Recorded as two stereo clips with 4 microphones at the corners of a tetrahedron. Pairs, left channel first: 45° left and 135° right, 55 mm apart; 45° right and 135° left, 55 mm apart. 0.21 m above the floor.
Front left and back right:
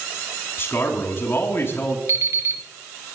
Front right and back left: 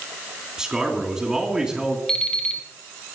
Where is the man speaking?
60° left, 2.5 m.